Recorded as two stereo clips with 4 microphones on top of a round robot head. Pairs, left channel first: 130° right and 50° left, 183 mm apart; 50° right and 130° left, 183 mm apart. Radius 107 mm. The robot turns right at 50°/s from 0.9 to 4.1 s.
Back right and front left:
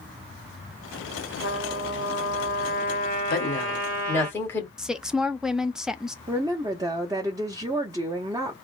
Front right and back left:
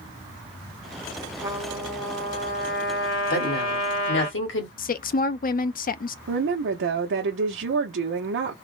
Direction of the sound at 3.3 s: 90° right.